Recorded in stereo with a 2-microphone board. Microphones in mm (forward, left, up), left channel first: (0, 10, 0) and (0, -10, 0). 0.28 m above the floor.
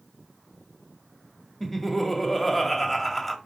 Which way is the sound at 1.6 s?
5° left (ahead or behind).